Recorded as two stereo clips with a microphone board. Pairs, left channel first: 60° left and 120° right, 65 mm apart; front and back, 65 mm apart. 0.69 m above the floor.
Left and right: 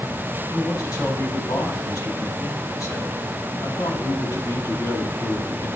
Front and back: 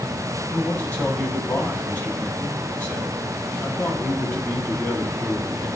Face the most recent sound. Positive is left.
turn(degrees=55)